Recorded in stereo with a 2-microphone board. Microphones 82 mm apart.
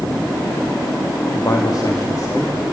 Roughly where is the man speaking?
Left.